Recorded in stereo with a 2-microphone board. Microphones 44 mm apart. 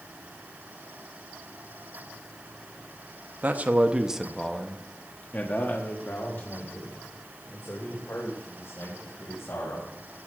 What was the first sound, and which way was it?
A man speaking, 45° right (ahead or behind).